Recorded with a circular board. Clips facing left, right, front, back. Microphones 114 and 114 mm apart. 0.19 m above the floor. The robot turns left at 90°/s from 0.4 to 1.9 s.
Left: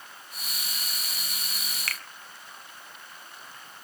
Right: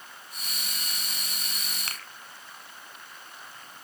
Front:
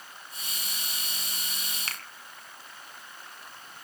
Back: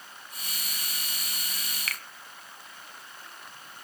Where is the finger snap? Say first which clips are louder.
Left 6 dB, back 3 dB; 40° right, 1.8 m.